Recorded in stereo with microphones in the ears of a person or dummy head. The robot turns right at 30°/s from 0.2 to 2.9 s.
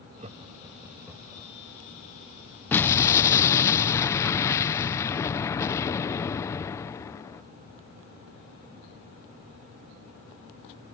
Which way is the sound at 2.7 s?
10° left (ahead or behind).